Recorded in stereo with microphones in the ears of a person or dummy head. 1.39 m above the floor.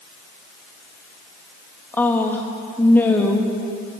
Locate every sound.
1.9 s a woman speaking: 10° left (ahead or behind), 2.5 m